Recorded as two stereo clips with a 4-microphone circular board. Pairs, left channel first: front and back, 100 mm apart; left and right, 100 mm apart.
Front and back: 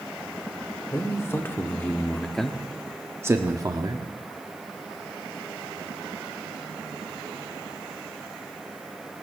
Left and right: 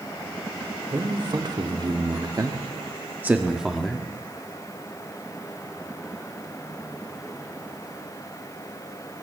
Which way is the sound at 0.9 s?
55° right.